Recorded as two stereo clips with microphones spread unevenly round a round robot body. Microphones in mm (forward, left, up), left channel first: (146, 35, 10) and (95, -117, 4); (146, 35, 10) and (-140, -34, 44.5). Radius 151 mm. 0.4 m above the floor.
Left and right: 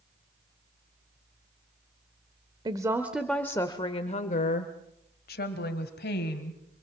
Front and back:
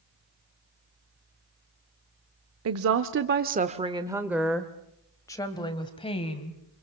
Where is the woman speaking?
160° right, 1.0 m; by 6.6 s 80° left, 2.5 m.